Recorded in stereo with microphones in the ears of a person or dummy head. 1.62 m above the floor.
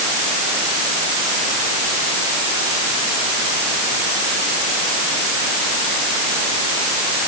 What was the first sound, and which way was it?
Only background noise.